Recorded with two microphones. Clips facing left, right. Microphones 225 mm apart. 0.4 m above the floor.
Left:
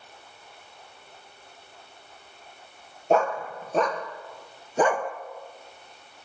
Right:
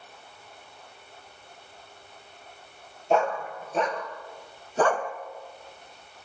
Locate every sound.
3.1 s a dog barking: 50° left (ahead or behind), 3 m; by 5.1 s 10° left (ahead or behind), 1.4 m